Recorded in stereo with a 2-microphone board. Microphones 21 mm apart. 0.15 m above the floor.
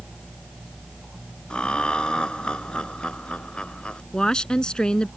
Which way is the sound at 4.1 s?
35° left (ahead or behind).